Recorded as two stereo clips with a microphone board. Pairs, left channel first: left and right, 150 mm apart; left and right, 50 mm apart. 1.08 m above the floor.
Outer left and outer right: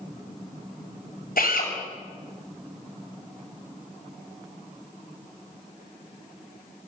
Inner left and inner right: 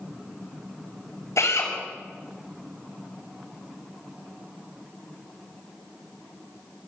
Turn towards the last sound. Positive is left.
turn(degrees=80)